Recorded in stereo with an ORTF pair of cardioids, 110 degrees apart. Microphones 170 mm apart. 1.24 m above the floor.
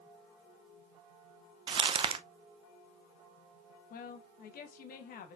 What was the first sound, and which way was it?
Crumpling, 35° right.